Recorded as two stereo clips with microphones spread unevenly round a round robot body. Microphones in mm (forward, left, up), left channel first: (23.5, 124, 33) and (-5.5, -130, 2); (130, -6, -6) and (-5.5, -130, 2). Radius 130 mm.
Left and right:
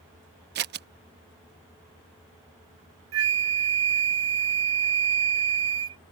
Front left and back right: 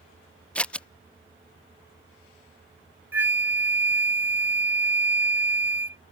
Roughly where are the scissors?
Ahead right.